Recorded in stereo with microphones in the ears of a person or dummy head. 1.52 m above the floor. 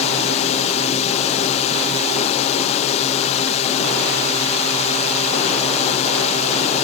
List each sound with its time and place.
0.0 s a drone: 45° left (ahead or behind)